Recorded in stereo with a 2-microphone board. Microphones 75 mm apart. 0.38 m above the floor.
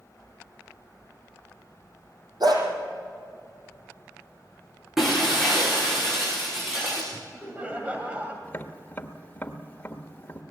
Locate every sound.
2.4 s a dog barking: 70° right (ahead or behind), 5 m
5.0 s breaking glass: 5° right (ahead or behind), 8.5 m
7.1 s laughter: 20° right (ahead or behind), 2 m
8.4 s tapping: 25° left (ahead or behind), 1.5 m